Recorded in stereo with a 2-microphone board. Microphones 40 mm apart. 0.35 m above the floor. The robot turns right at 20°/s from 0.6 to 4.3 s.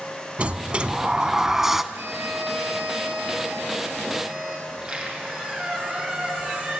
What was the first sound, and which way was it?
A sliding door, 30° right (ahead or behind).